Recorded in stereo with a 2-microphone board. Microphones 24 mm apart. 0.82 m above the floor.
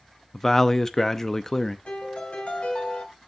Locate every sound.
0.3 s a man speaking: 15° left (ahead or behind), 0.7 m
1.9 s a piano: 60° left (ahead or behind), 2.5 m